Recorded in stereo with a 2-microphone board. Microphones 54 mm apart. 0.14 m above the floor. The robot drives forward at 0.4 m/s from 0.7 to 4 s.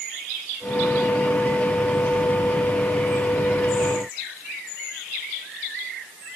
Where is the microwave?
No microwave in this recording.